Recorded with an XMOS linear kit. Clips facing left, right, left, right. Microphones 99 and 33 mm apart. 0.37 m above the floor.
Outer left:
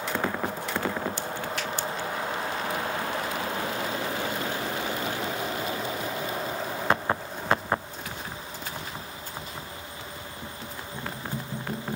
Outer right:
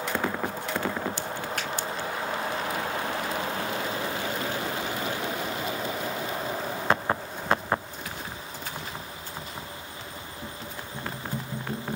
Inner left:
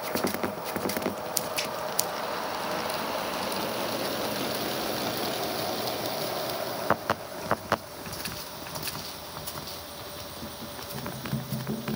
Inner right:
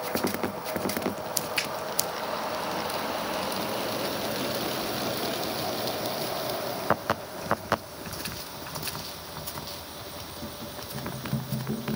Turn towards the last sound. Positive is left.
turn(degrees=-50)  # may be behind; listen again after turning